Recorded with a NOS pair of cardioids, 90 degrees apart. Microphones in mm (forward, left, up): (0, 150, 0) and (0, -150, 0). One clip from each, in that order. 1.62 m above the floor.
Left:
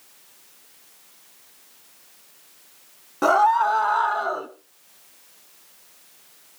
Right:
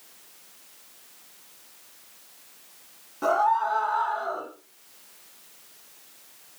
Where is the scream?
60° left, 2.5 m; by 4.5 s 45° left, 2.5 m.